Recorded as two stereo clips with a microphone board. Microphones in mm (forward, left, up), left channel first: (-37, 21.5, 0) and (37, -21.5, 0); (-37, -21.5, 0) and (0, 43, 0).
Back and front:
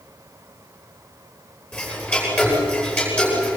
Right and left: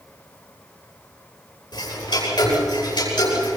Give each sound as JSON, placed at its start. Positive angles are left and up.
{"t": 1.7, "sound": "ticking", "azimuth_deg": -140, "distance_m": 10.0}